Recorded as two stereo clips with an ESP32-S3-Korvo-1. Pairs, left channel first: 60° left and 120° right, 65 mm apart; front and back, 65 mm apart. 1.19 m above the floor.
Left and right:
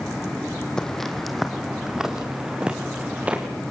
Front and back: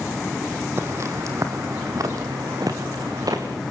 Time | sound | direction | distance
0.8 | footsteps | 140° left | 2.5 m